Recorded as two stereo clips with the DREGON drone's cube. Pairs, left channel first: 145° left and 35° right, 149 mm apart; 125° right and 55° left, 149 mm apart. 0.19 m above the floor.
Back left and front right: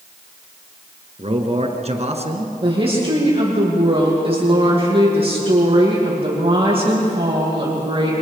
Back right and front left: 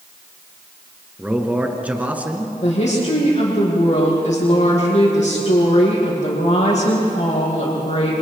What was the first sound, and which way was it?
A man speaking, 20° right.